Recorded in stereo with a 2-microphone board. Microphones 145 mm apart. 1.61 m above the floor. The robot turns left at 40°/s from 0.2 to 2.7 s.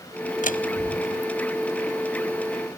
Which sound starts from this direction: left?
A door slam, at 0.4 s.